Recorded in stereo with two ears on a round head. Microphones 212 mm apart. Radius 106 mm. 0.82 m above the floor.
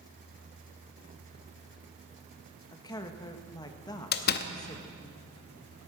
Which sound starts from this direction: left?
A door slam, at 4.1 s.